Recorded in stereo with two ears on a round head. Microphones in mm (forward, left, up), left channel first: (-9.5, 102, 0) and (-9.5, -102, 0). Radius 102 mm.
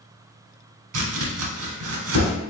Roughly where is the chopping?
Right.